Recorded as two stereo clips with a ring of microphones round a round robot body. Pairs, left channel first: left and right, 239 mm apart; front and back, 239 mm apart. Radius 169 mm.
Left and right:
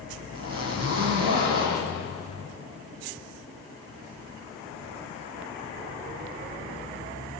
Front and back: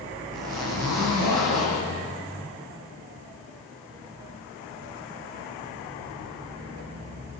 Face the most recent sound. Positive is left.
turn(degrees=-145)